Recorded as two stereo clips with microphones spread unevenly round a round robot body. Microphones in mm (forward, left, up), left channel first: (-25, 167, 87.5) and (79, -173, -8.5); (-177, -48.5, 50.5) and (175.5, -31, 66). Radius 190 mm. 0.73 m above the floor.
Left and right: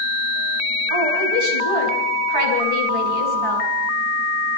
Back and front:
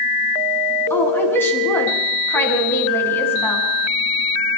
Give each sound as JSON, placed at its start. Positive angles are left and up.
{"t": 0.9, "sound": "a woman speaking", "azimuth_deg": -95, "distance_m": 6.5}